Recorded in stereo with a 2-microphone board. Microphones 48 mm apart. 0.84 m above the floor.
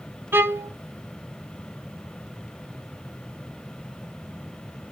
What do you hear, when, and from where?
0.3 s a violin: 55° right (ahead or behind), 0.6 m